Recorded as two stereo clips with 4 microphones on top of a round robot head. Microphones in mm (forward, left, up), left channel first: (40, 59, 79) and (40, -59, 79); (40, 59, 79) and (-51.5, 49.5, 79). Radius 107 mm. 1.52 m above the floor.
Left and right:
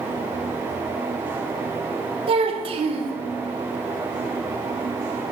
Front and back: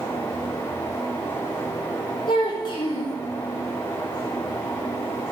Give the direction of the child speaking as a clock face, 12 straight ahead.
2 o'clock.